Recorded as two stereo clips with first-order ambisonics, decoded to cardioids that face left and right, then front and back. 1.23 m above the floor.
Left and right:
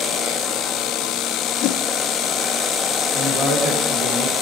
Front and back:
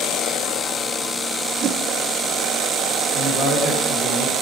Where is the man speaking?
135° right, 4 m.